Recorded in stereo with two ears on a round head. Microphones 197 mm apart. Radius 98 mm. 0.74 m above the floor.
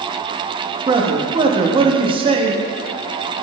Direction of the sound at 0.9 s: 20° right (ahead or behind).